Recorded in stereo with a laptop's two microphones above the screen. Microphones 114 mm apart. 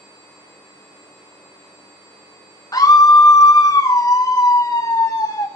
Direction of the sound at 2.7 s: 35° left (ahead or behind).